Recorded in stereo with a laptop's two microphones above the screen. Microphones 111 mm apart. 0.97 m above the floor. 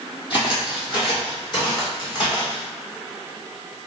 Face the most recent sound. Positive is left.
turn(degrees=40)  # may be behind; listen again after turning